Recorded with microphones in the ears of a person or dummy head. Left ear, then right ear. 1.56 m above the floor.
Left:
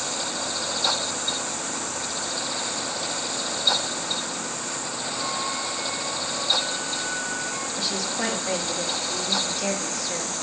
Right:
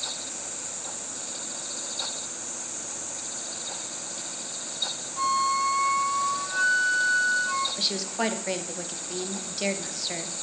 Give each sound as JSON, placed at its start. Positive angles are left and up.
{"t": 5.2, "sound": "a flute", "side_deg": -60, "distance_m": 0.6}
{"t": 7.8, "sound": "a woman speaking", "side_deg": -35, "distance_m": 1.7}